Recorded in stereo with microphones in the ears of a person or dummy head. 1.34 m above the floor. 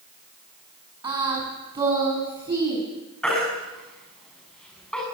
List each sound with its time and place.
1.0 s singing: 20° right (ahead or behind), 7 m
3.2 s a baby crying: 5° left (ahead or behind), 6.5 m